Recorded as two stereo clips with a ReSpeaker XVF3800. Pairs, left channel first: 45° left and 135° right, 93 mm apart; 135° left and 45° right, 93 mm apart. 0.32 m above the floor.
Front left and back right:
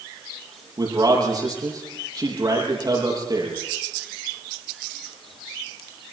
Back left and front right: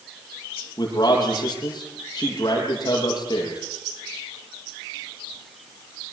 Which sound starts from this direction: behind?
A man speaking, at 0.8 s.